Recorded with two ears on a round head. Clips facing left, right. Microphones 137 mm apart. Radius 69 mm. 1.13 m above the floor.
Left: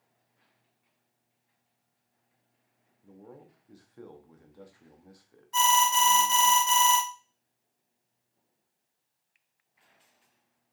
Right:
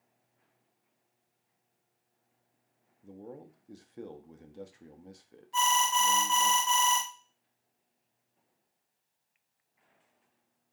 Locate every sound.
3.0 s a man speaking: 25° right (ahead or behind), 0.6 m
5.5 s an alarm: 45° left (ahead or behind), 0.8 m